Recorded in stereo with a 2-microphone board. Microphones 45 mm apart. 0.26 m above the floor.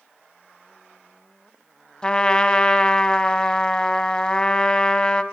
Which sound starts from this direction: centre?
A trumpet, at 2.0 s.